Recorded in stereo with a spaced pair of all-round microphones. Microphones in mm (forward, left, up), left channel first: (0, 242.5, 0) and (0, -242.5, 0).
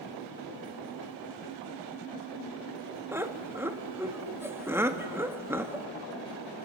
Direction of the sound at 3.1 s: 5° right (ahead or behind).